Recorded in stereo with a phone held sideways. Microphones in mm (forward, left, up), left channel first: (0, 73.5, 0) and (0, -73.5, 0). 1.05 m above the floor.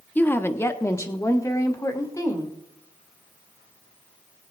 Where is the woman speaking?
10° left (ahead or behind), 0.7 m; by 2.6 s 25° left (ahead or behind), 2 m.